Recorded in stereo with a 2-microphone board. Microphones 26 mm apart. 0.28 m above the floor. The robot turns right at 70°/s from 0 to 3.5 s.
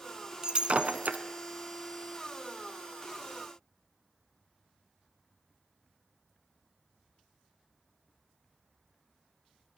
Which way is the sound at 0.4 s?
25° right (ahead or behind).